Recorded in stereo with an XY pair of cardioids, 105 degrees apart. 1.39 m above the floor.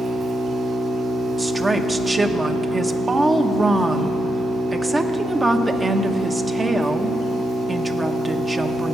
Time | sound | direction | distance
0.0 | an engine running | 65° right | 6 m
1.4 | a woman speaking | 25° right | 1.2 m